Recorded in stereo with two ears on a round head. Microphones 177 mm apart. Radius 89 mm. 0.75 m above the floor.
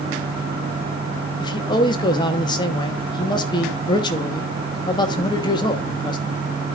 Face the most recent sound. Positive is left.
turn(degrees=25)  # may be behind; listen again after turning